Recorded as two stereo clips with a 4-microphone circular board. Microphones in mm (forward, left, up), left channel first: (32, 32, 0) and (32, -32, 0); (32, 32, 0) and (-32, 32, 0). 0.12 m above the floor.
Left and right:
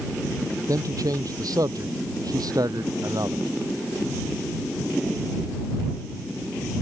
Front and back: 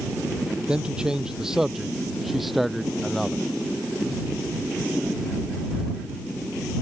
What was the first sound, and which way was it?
A man speaking, 105° right.